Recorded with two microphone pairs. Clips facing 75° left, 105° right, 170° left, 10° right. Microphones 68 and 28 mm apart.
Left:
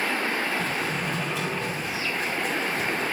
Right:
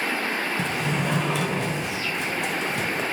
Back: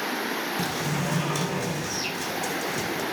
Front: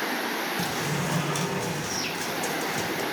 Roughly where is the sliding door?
Right.